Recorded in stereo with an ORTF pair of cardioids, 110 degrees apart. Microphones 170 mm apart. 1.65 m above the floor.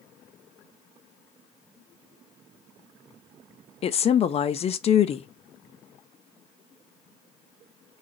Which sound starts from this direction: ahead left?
A woman speaking, at 3.8 s.